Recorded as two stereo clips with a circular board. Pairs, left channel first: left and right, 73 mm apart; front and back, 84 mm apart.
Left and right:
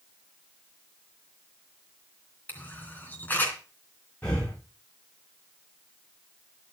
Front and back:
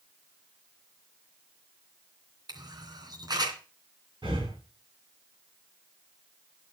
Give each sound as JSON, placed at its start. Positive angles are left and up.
{"t": 2.5, "sound": "a camera shutter", "azimuth_deg": 150, "distance_m": 3.0}
{"t": 4.2, "sound": "breathing", "azimuth_deg": 160, "distance_m": 7.0}